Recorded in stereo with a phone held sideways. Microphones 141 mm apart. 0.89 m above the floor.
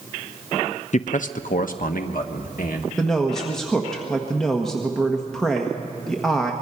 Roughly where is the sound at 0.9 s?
Left.